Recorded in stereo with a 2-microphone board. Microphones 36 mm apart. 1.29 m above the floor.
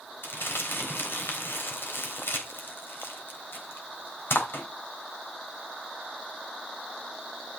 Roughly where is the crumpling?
Left.